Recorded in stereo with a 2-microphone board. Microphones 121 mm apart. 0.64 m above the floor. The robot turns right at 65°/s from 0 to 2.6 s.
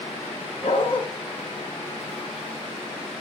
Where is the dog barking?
70° left (ahead or behind), 2 m; by 1.0 s 45° left (ahead or behind), 2 m.